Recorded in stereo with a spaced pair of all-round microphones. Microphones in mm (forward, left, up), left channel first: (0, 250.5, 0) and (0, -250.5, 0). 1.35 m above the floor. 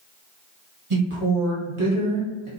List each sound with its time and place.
0.9 s a woman speaking: 70° right (ahead or behind), 1.6 m